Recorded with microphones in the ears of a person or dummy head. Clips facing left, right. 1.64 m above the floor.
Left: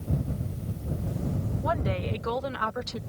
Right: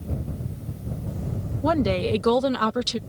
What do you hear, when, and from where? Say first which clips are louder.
1.6 s a woman speaking: right 10 dB; 50° right (ahead or behind); by 3.0 s 40° right (ahead or behind)